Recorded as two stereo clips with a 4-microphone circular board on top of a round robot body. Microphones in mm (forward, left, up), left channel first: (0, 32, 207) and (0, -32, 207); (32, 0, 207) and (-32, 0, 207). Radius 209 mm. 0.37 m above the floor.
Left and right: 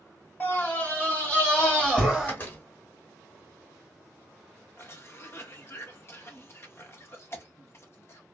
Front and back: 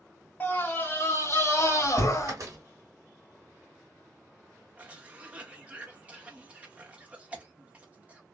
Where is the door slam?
145° left, 1.3 m.